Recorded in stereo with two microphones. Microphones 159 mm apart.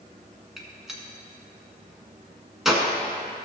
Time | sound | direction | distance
0.6 | a gunshot | centre (ahead or behind) | 1.6 m